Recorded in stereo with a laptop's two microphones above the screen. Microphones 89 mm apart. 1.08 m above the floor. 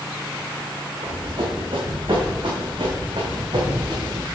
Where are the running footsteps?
75° right (ahead or behind), 4 m; by 4.2 s 50° right (ahead or behind), 3.5 m.